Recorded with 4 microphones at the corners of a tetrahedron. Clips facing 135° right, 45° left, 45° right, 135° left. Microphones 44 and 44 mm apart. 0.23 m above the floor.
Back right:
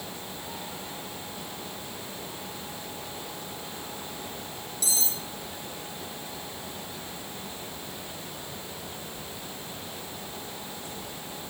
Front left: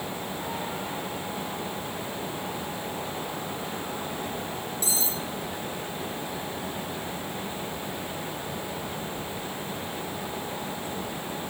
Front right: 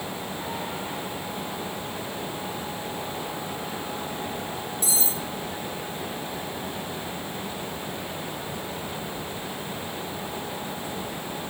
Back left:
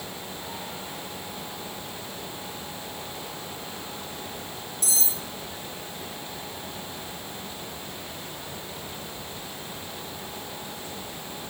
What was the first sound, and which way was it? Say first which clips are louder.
Cutlery clinking: back right 1 dB, front right 1 dB; 100° left.